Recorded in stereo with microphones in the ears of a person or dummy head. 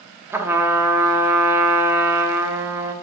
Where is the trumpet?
15° right (ahead or behind), 0.8 m.